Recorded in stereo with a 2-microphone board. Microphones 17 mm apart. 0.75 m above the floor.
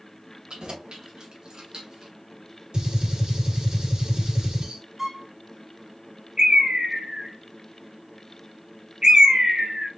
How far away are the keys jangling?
About 2 m.